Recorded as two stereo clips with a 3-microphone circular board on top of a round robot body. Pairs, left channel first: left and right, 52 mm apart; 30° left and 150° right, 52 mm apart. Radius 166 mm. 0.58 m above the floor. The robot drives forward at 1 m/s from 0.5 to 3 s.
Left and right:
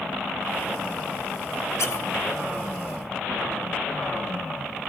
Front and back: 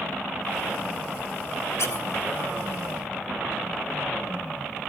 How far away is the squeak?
About 1.8 m.